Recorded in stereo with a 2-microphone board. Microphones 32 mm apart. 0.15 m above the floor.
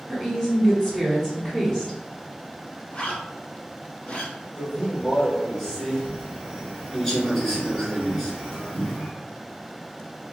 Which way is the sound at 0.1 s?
20° left (ahead or behind).